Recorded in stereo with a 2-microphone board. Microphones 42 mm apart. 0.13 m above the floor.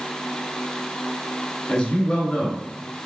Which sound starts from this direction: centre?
A man speaking, at 1.7 s.